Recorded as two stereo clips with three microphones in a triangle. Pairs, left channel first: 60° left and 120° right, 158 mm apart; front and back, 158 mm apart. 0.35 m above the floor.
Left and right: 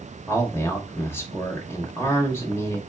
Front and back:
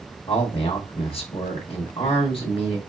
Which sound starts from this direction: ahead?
A man speaking, at 0.3 s.